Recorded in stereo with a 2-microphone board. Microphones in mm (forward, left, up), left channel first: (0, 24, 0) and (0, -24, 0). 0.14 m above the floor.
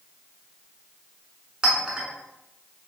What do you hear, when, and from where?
1.6 s a clink: 15° right (ahead or behind), 0.8 m